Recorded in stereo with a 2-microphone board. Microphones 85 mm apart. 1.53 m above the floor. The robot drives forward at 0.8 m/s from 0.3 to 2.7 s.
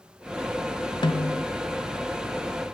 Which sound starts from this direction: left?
A snare drum, at 1.0 s.